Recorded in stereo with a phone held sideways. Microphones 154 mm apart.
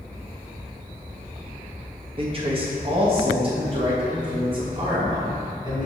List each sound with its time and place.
2.2 s a man speaking: 35° right (ahead or behind), 1.1 m; by 5.9 s 30° right (ahead or behind), 3.5 m